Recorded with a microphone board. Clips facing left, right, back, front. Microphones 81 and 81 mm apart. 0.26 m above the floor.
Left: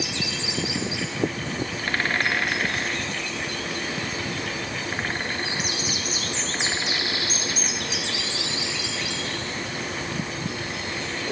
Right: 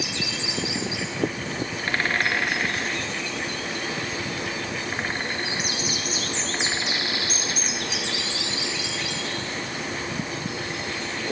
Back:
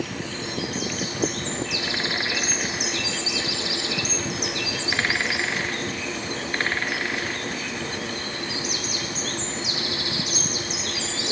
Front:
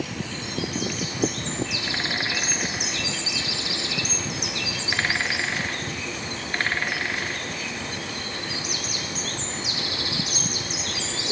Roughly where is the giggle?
I don't hear a giggle.